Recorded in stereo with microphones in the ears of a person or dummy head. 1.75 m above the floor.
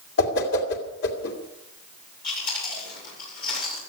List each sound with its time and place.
0.2 s a whoosh: 65° left (ahead or behind), 2.5 m
2.2 s chewing: 55° left (ahead or behind), 6.5 m